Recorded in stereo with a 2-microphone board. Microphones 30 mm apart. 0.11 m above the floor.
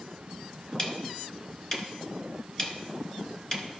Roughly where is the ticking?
Left.